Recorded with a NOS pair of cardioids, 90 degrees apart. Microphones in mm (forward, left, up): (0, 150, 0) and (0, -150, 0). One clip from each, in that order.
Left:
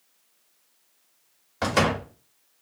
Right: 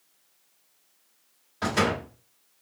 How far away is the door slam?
About 1.8 m.